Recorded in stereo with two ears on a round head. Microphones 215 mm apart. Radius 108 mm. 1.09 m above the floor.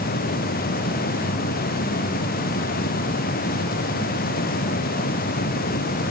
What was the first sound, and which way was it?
Only background noise.